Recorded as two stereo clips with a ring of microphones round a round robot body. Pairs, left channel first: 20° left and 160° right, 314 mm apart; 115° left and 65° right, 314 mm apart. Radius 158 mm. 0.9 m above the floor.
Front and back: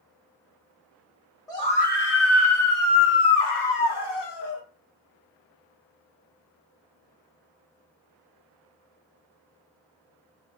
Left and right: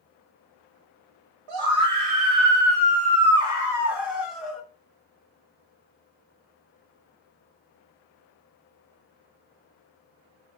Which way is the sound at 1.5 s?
55° right.